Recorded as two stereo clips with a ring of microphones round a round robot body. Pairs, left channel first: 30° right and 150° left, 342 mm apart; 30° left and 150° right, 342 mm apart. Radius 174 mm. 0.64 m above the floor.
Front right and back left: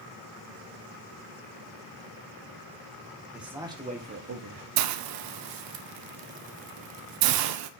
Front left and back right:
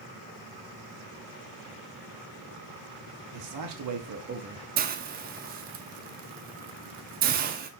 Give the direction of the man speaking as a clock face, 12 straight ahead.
4 o'clock.